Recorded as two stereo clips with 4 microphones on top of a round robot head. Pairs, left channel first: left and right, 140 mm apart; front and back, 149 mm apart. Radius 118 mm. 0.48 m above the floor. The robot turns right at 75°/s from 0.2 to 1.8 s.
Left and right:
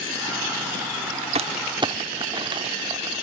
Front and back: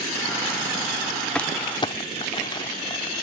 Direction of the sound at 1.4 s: 80° right.